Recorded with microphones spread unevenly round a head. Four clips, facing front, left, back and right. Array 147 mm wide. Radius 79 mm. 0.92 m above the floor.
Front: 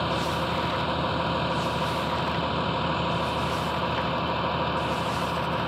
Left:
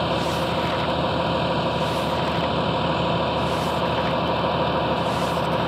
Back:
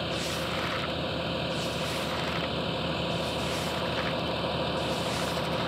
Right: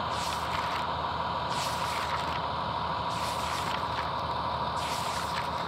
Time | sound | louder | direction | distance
0.0 | a vehicle | left 9 dB, front 5 dB | 70° left | ?